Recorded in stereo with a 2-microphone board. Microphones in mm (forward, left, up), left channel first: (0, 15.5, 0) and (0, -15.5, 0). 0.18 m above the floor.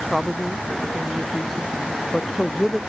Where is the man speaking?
5° right (ahead or behind).